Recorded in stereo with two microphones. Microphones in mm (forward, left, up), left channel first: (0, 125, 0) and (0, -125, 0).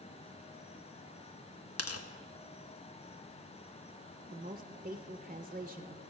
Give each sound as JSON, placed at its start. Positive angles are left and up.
{"t": 1.8, "sound": "tearing paper", "side_deg": 70, "distance_m": 0.8}
{"t": 4.3, "sound": "a woman speaking", "side_deg": -35, "distance_m": 0.6}